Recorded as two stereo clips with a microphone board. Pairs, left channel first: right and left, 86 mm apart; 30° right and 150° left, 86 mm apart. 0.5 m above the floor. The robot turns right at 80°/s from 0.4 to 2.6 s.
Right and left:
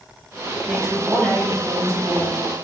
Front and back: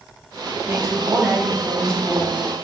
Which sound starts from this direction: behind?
A woman speaking, at 0.7 s.